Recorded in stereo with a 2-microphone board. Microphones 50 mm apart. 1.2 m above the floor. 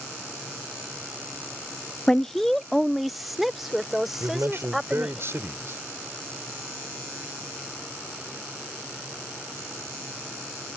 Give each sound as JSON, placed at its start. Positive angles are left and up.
{"t": 2.1, "sound": "a woman speaking", "side_deg": 15}
{"t": 4.2, "sound": "a man speaking", "side_deg": -55}